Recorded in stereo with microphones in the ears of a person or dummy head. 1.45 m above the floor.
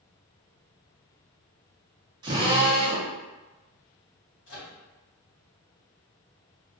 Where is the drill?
20° right (ahead or behind), 0.7 m.